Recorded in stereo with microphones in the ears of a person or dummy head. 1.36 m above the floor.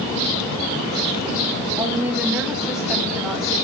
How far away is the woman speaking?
About 3 m.